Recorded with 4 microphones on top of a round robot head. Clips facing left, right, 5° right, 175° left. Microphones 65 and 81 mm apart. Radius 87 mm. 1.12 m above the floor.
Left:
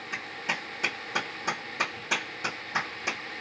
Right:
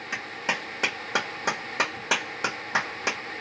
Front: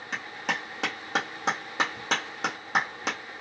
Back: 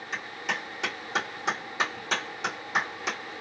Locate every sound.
0.1 s a clap: 55° right, 1.4 m